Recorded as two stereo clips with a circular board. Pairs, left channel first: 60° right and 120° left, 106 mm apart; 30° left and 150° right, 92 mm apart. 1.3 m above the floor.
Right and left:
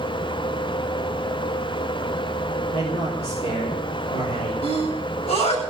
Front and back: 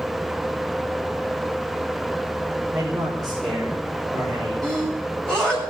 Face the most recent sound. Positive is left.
turn(degrees=-50)